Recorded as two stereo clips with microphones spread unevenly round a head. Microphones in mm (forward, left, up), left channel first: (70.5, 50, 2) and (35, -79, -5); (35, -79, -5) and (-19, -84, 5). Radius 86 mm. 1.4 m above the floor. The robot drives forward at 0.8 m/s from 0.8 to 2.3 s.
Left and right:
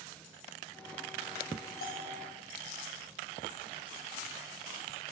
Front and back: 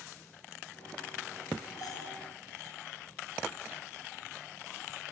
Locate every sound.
1.8 s a bell: 70° left, 8 m; by 2.2 s 75° left, 7.5 m